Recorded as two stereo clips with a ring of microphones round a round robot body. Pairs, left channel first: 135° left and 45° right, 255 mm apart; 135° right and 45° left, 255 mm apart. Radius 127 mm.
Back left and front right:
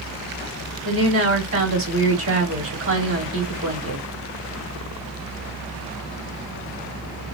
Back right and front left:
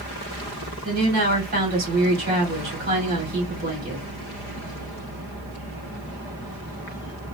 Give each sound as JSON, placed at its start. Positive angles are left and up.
{"t": 0.8, "sound": "a woman speaking", "azimuth_deg": -10, "distance_m": 2.0}